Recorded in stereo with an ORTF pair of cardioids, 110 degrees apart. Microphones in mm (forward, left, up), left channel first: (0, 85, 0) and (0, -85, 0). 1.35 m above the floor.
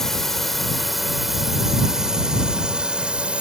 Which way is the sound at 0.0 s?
Straight ahead.